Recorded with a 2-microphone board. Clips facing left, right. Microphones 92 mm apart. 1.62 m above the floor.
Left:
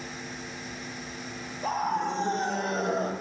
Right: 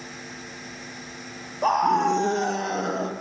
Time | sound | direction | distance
1.6 | a scream | 65° right (ahead or behind) | 0.5 m